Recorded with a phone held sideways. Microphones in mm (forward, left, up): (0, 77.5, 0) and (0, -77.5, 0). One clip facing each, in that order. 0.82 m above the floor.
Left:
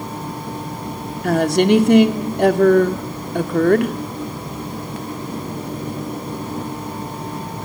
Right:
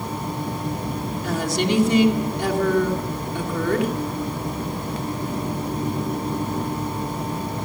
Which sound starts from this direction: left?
A woman speaking, at 1.2 s.